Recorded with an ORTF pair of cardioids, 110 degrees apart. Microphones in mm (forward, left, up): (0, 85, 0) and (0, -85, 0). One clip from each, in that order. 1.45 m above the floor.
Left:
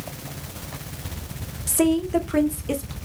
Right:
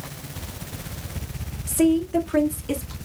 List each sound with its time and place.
1.7 s a woman speaking: 20° left, 1.1 m; by 3.0 s 5° left, 2.0 m